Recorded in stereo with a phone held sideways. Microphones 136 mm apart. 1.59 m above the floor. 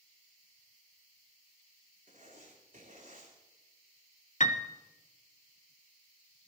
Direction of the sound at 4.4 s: 60° left (ahead or behind).